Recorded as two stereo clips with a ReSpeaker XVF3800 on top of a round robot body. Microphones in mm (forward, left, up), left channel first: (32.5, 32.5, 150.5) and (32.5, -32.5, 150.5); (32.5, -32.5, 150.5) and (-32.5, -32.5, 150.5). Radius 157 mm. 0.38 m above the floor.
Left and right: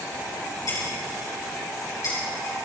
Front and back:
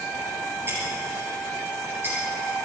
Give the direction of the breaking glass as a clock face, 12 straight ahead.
8 o'clock.